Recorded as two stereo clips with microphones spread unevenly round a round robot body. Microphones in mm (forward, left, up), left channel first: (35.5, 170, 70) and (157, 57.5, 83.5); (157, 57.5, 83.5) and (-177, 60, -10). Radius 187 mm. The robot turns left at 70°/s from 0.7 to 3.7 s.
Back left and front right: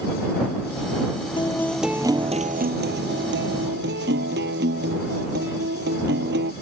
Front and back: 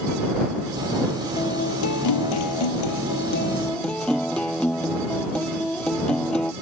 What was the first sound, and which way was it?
A guitar, 75° left.